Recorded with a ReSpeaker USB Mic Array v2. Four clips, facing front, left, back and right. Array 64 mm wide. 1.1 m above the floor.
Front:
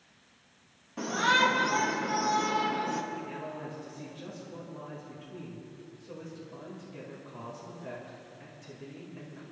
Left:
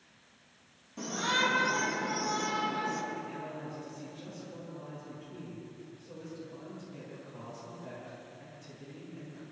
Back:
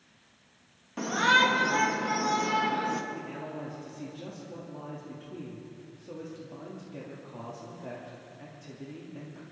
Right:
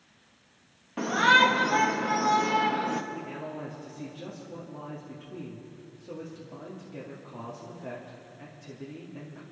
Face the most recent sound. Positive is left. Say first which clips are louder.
# right 3 dB, even
turn(degrees=-125)